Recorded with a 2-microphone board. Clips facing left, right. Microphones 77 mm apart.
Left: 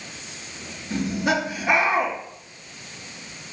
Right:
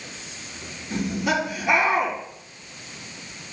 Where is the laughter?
45° left (ahead or behind), 4.5 m.